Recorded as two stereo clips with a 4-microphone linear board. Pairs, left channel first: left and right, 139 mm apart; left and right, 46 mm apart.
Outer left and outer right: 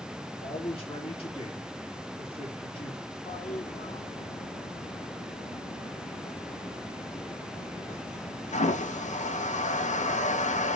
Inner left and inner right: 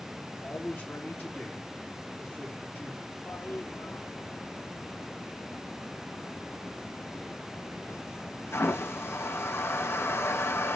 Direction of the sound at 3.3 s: 60° left (ahead or behind).